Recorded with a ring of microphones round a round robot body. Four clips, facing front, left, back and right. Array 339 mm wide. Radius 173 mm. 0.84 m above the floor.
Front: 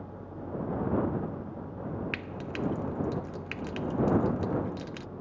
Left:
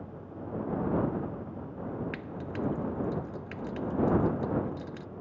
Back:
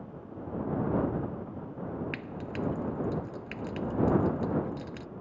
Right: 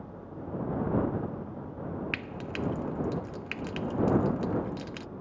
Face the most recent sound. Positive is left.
turn(degrees=-60)